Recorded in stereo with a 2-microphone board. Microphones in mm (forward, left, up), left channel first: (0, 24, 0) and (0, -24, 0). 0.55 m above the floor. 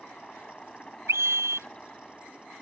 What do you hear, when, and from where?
0.0 s a helicopter: 20° left (ahead or behind)
1.1 s a scream: 75° right (ahead or behind)